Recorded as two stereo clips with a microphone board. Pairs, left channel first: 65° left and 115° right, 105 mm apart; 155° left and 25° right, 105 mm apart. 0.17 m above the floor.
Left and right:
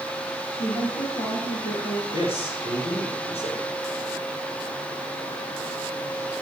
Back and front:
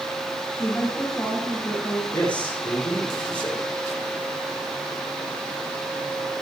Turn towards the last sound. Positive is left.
turn(degrees=80)